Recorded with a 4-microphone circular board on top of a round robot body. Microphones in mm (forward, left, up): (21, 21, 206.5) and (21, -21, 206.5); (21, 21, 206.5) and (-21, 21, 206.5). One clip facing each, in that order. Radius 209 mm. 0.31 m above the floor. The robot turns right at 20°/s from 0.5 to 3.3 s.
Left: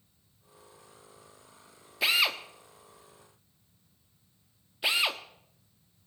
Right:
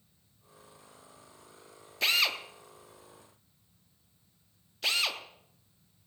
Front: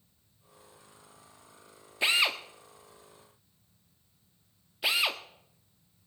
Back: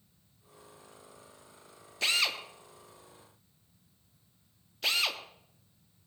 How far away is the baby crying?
No baby crying in this recording.